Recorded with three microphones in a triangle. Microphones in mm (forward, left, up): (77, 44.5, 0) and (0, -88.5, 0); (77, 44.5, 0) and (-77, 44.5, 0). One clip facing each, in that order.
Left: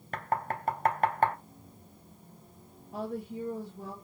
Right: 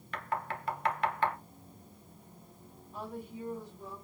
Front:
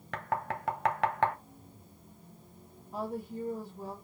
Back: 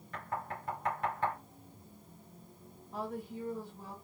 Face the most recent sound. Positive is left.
turn(degrees=75)